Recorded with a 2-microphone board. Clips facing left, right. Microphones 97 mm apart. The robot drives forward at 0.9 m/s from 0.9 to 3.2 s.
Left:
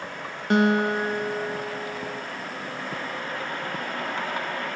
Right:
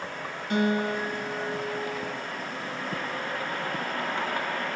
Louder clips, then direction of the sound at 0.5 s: Left 5 dB; 75° left (ahead or behind).